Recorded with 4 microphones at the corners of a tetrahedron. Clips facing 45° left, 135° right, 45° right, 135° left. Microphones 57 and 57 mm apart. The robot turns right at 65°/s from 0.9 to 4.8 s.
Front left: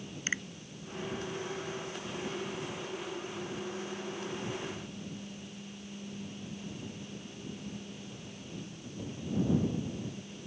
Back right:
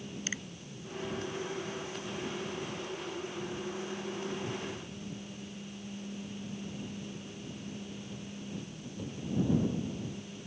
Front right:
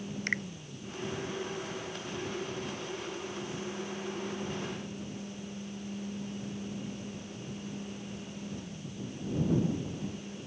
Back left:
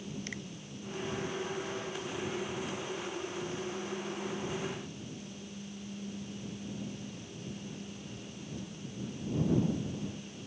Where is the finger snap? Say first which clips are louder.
Front left 6 dB, front right 9 dB; 10° right.